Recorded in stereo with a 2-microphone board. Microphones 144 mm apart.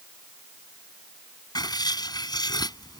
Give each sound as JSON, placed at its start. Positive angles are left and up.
{"t": 1.6, "sound": "writing", "side_deg": 30}